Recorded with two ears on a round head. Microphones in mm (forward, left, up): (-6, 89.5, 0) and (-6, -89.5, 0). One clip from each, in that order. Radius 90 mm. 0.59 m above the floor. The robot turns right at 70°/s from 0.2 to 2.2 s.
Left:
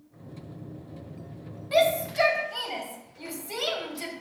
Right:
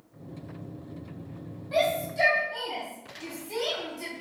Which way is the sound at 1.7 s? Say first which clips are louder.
Left 3 dB; 75° left (ahead or behind).